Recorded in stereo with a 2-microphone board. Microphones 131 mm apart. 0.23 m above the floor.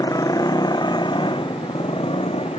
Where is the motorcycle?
25° left (ahead or behind); by 2.6 s 45° left (ahead or behind).